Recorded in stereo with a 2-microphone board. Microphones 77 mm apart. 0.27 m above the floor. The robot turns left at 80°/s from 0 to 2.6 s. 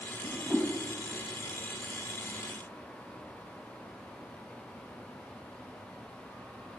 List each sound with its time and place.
0.2 s a whoosh: 15° right (ahead or behind), 1.4 m; by 0.7 s 15° left (ahead or behind), 1.4 m